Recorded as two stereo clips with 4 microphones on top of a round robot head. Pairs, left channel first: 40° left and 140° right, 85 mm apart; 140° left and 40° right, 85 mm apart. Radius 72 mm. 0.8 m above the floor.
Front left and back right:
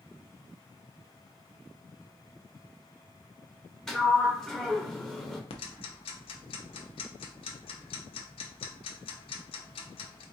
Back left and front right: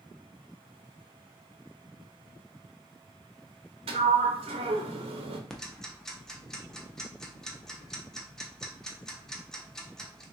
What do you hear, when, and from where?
3.9 s a sliding door: 45° right, 0.8 m
5.5 s ticking: 55° left, 0.7 m